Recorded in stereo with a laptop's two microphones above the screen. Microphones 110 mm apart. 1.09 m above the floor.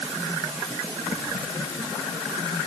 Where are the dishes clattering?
I don't hear dishes clattering.